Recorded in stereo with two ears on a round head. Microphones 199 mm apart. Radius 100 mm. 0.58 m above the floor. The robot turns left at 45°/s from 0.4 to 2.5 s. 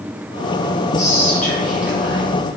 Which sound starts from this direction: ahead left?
Whispering, at 1.0 s.